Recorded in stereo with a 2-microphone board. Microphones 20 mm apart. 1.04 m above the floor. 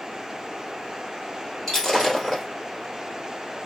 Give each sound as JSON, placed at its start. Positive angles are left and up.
{"t": 1.7, "sound": "breaking glass", "side_deg": 25, "distance_m": 1.7}